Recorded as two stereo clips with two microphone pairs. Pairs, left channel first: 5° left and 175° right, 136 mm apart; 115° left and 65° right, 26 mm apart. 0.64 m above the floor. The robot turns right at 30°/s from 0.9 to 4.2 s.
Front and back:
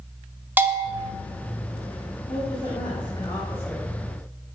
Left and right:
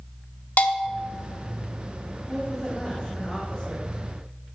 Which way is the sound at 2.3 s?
30° left.